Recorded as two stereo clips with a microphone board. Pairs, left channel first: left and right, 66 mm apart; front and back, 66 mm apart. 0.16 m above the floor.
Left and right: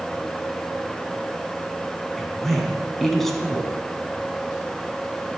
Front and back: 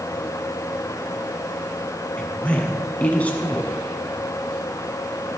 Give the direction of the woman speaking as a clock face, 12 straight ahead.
12 o'clock.